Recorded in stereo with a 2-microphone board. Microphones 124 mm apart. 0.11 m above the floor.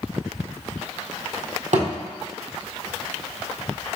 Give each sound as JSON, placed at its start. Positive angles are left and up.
{"t": 1.7, "sound": "a thud", "side_deg": -70, "distance_m": 1.4}